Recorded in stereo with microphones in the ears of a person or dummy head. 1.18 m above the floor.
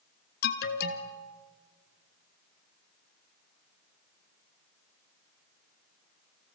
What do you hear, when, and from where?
0.4 s an alarm: 55° left (ahead or behind), 2.5 m